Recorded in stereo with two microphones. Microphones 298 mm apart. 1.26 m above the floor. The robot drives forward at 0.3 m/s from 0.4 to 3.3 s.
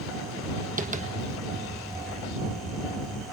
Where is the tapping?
25° right (ahead or behind), 1.0 m.